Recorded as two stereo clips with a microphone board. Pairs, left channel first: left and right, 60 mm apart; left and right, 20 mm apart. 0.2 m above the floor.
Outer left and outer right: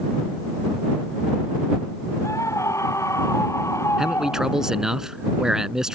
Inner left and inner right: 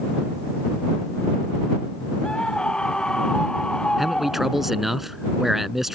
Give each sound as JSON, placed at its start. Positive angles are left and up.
{"t": 2.2, "sound": "a scream", "side_deg": 55}
{"t": 4.0, "sound": "a man speaking", "side_deg": -10}